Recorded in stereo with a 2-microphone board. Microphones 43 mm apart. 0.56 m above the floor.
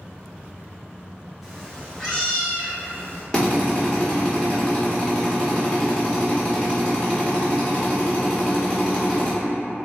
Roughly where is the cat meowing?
Centre.